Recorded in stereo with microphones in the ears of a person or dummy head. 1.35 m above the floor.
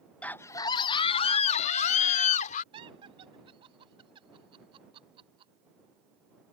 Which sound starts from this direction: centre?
A scream, at 0.2 s.